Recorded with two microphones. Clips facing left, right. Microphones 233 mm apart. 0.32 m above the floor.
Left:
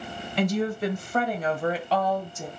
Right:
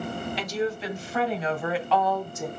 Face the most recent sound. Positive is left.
turn(degrees=30)  # may be behind; listen again after turning